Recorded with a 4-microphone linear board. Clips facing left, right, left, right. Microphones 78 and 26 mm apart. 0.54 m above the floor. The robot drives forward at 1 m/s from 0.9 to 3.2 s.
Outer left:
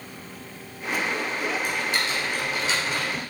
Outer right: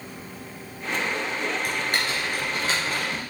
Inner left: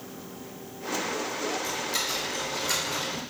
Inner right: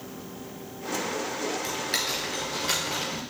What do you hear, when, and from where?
1.6 s typing on a keyboard: 65° right (ahead or behind), 3 m; by 3.2 s 45° right (ahead or behind), 4 m